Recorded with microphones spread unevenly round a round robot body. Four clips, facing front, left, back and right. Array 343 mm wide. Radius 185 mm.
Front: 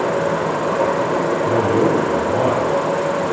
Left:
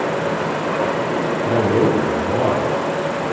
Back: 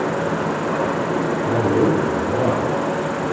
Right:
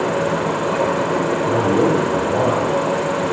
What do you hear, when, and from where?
0.0 s an insect: 30° right, 0.8 m
1.4 s a man speaking: 60° left, 8 m